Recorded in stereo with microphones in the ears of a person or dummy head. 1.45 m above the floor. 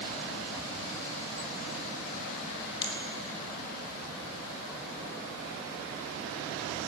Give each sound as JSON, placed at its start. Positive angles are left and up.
{"t": 2.8, "sound": "a finger snap", "side_deg": 25, "distance_m": 1.5}